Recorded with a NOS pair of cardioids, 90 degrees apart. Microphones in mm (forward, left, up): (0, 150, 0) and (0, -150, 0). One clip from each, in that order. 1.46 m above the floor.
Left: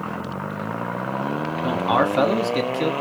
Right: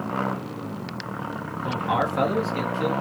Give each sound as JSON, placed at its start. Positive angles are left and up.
{"t": 1.6, "sound": "a man speaking", "azimuth_deg": 40, "distance_m": 0.6}